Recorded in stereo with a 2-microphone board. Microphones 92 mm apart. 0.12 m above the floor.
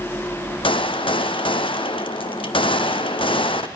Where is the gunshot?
65° left (ahead or behind), 1.0 m.